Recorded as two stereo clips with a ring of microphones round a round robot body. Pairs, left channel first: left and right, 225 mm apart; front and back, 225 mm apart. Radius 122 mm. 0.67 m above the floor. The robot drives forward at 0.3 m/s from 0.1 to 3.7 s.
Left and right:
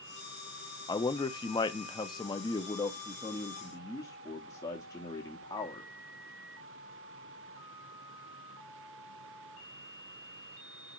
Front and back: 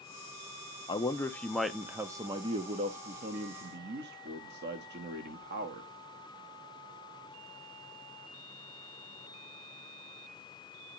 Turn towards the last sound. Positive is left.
turn(degrees=160)